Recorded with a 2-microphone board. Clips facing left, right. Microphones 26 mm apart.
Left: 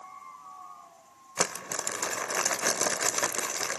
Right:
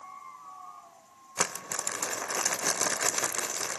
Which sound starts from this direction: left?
Crumpling, at 1.4 s.